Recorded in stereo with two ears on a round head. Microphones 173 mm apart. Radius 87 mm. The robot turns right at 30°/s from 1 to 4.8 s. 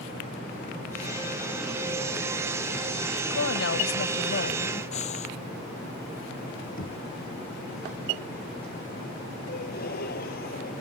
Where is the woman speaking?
85° left; by 4.8 s 130° left.